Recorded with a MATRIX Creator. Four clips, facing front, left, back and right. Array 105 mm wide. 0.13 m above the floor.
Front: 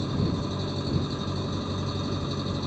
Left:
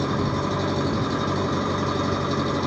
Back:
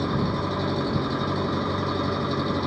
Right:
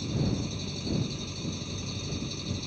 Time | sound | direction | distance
0.0 | an engine running | 120° left | ?